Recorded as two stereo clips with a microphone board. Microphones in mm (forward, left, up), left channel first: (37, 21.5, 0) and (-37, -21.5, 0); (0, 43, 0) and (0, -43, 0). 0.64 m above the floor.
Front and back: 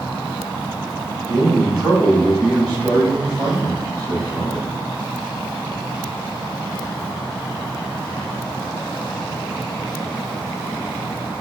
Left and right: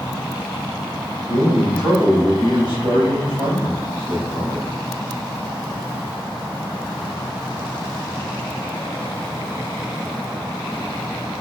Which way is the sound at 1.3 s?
125° right.